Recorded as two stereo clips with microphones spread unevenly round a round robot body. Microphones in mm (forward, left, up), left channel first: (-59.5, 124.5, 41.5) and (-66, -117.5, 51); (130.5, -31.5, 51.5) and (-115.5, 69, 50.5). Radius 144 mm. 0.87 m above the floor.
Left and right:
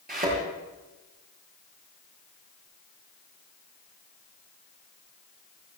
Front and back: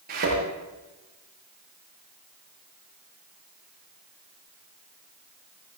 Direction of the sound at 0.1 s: 145° right.